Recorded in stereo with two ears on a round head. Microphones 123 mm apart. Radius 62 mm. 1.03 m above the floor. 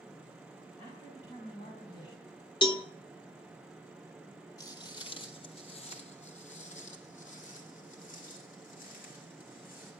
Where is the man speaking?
45° left (ahead or behind), 6 m.